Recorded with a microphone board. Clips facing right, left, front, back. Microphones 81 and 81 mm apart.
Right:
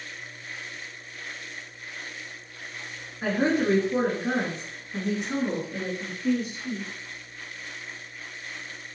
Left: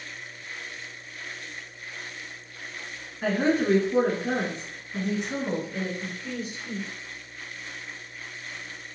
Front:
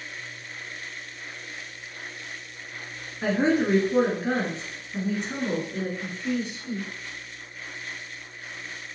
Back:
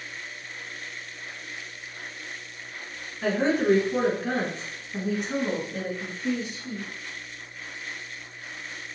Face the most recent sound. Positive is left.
turn(degrees=-110)